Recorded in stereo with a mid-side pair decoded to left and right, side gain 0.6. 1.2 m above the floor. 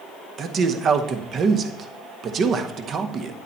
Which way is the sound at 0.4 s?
45° right.